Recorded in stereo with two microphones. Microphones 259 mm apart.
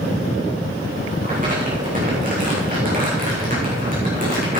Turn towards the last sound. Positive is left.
turn(degrees=-30)  # may be behind; listen again after turning